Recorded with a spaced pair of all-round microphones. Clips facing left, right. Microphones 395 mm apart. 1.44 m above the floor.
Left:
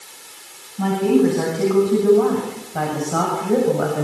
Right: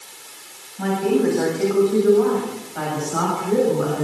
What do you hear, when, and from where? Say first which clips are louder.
0.8 s a woman speaking: left 3 dB; 45° left (ahead or behind), 8.5 m; by 4.0 s 80° left, 8 m